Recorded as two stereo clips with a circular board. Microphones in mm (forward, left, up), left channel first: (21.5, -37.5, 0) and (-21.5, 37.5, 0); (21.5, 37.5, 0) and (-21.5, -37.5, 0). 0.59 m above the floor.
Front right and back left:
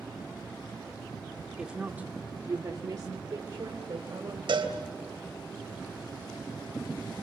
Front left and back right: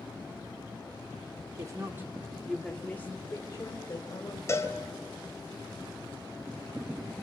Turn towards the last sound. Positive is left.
turn(degrees=115)